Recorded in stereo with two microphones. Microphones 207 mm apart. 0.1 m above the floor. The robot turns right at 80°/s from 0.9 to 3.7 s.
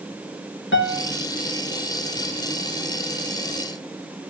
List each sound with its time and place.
0.7 s a piano: 70° left (ahead or behind), 2.5 m; by 1.1 s 60° left (ahead or behind), 2.5 m